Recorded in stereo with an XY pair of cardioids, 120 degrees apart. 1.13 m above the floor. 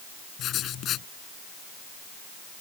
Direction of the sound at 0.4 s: 60° left.